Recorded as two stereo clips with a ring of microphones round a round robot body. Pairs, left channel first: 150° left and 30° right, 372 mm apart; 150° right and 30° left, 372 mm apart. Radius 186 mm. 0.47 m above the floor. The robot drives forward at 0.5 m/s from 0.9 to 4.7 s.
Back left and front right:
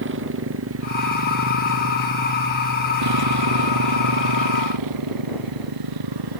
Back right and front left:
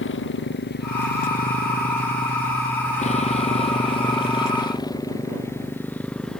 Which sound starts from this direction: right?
A motorcycle, at 0.0 s.